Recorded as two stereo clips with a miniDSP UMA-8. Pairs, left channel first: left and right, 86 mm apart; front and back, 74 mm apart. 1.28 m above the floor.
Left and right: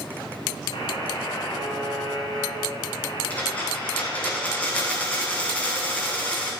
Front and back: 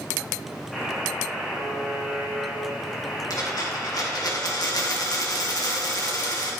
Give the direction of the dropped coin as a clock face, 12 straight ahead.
11 o'clock.